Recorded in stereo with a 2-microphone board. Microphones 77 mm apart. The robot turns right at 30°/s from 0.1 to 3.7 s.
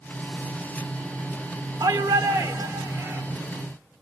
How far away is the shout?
About 2 m.